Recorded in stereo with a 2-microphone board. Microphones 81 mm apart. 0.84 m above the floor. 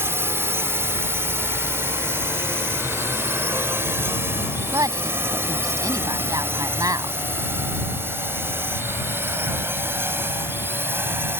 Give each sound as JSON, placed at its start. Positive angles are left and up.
{"t": 0.0, "sound": "a drone", "side_deg": -30}
{"t": 4.7, "sound": "a woman speaking", "side_deg": -45}